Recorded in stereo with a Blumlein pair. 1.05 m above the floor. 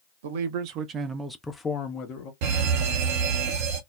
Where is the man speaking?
55° right, 0.7 m; by 2.3 s 40° left, 0.8 m.